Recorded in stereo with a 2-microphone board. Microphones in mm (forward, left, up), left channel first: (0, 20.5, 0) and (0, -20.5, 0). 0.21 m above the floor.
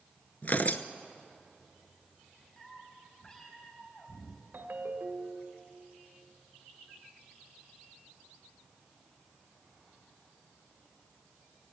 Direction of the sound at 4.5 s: 55° right (ahead or behind).